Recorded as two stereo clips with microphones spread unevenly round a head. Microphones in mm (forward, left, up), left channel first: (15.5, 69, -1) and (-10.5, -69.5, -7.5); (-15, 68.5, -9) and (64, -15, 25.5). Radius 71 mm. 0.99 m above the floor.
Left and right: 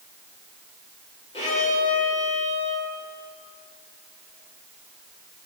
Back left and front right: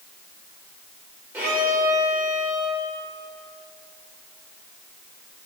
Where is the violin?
30° left, 4.5 m.